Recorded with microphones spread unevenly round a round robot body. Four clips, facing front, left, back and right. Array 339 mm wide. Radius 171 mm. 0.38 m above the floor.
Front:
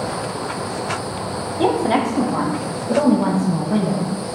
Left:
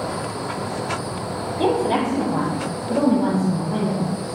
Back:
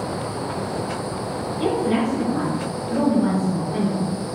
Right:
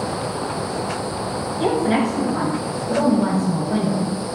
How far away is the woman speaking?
About 1.7 m.